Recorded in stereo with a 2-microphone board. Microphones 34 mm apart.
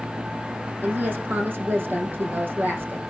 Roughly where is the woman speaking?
Right.